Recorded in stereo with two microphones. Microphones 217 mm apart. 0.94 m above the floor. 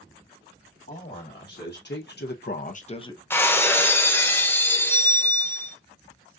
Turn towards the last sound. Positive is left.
turn(degrees=10)  # may be behind; listen again after turning